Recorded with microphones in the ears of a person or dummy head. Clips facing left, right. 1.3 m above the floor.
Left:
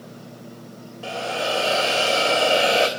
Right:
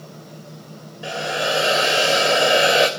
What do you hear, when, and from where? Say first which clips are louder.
1.0 s a hiss: right 2 dB; 20° right (ahead or behind), 3 m